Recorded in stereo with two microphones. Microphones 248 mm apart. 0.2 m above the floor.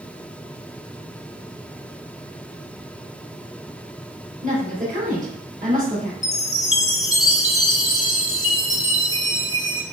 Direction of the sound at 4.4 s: 35° right (ahead or behind).